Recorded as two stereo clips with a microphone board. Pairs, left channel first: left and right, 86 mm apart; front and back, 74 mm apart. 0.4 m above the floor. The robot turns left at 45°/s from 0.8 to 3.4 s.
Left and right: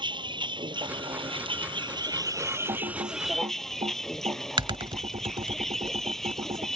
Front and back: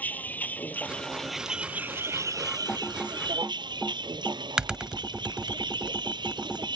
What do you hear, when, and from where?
0.0 s a vehicle: 70° right; by 6.8 s 175° left
2.7 s typing on a keyboard: 70° right; by 6.7 s 100° right